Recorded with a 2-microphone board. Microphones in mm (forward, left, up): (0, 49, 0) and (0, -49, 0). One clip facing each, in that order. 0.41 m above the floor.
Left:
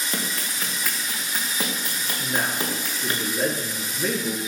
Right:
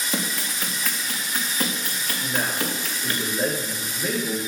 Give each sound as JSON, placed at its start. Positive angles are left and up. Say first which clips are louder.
{"t": 0.1, "sound": "running footsteps", "louder": "right 4 dB", "side_deg": -5, "distance_m": 2.5}
{"t": 2.2, "sound": "a man speaking", "louder": "even", "side_deg": 80, "distance_m": 6.5}